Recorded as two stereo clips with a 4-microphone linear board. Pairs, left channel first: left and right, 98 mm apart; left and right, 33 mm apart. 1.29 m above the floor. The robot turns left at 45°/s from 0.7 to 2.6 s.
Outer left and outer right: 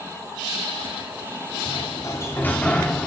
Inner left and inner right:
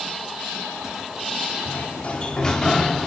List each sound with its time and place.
1.6 s a sliding door: 55° left, 1.7 m; by 3.1 s 15° left, 1.7 m